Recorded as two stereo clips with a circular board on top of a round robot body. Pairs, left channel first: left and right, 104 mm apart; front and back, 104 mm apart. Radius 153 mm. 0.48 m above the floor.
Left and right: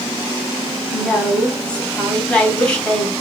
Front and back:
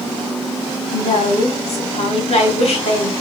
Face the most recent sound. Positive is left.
turn(degrees=10)